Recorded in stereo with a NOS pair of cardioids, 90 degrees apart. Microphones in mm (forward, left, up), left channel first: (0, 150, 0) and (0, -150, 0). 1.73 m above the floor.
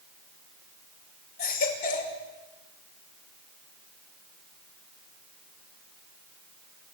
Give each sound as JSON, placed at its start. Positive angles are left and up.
{"t": 1.4, "sound": "a baby crying", "azimuth_deg": 70, "distance_m": 5.5}